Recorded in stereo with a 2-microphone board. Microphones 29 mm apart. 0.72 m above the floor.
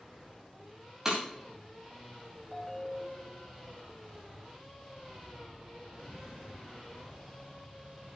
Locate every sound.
1.1 s breaking glass: 20° right (ahead or behind), 6 m
2.5 s a ringtone: 5° left (ahead or behind), 2.5 m